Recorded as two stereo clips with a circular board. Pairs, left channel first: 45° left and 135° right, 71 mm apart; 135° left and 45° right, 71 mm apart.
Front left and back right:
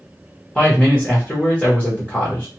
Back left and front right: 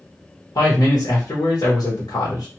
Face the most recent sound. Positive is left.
turn(degrees=125)